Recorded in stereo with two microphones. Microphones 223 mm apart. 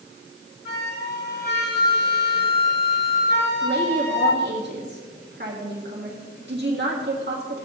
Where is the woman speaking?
50° right (ahead or behind), 1.8 m.